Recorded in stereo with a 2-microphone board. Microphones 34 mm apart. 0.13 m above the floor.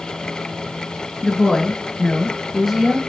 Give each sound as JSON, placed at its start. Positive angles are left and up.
{"t": 1.2, "sound": "a woman speaking", "side_deg": 20, "distance_m": 1.2}